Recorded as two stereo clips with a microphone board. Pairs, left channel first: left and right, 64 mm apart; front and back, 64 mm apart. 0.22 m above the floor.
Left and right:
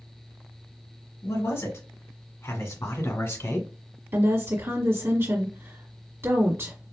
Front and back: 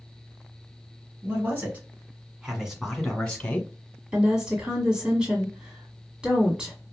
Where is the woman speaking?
110° right, 1.5 m.